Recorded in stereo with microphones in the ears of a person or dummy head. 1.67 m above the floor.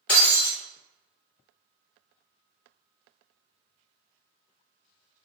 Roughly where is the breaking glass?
Centre.